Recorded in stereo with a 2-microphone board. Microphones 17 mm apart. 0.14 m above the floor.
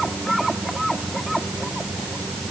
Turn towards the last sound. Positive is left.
No sound to turn to.